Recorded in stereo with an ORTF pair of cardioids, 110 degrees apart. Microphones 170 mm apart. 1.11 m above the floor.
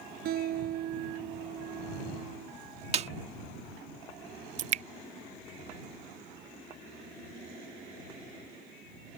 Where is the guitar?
60° right.